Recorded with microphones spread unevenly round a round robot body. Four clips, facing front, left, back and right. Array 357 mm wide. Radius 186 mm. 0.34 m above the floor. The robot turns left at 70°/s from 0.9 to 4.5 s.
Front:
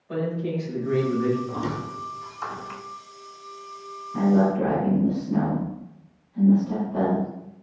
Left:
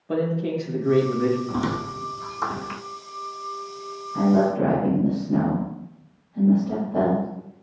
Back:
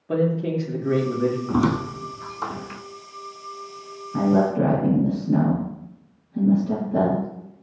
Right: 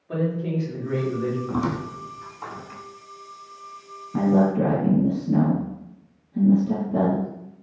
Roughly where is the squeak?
Behind.